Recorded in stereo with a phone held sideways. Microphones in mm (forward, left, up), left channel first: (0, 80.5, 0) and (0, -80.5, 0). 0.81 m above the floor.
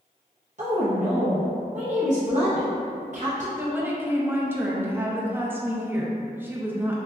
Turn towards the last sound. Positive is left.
turn(degrees=-15)  # may be behind; listen again after turning